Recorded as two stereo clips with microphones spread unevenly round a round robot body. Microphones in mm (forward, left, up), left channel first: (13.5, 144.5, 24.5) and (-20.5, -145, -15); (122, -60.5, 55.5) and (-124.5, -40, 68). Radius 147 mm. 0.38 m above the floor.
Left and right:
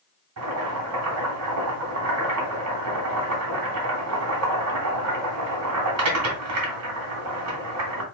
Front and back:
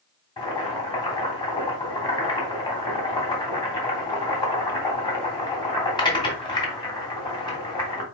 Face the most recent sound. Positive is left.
turn(degrees=-75)